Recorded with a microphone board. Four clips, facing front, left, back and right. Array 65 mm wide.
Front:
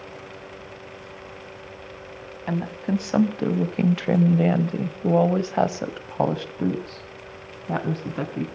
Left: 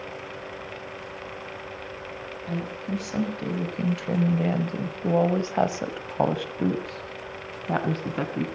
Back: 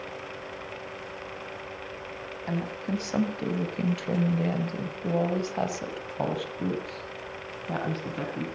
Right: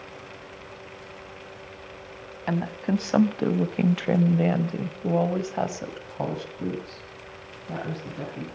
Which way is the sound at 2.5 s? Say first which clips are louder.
Right 5 dB, front 6 dB; 70° right.